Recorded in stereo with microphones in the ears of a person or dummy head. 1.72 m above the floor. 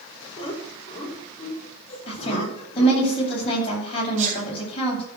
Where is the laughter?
30° left (ahead or behind), 5.5 m; by 3.0 s 40° left (ahead or behind), 6.5 m.